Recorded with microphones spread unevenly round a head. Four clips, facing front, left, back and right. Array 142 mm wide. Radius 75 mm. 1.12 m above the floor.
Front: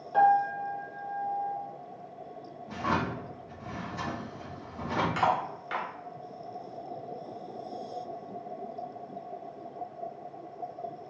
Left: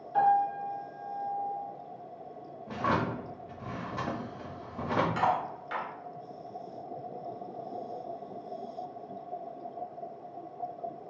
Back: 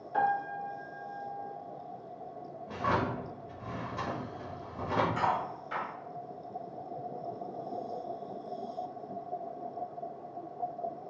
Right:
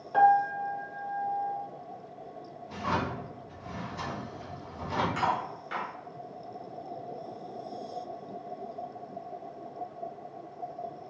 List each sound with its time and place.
0.1 s a piano: 75° right, 1.1 m
2.7 s a drawer: 90° left, 0.7 m
5.2 s cutlery clinking: straight ahead, 1.3 m